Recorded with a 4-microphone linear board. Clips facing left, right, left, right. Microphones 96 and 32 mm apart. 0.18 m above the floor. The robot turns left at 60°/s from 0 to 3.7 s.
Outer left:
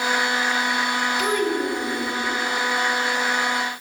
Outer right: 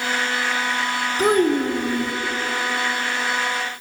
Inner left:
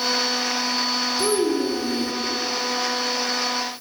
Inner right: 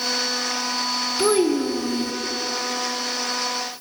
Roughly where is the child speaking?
Ahead right.